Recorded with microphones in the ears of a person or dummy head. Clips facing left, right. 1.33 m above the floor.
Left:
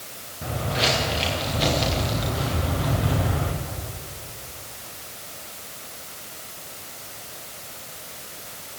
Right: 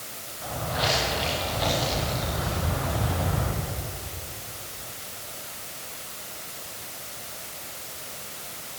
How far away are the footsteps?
About 7.5 m.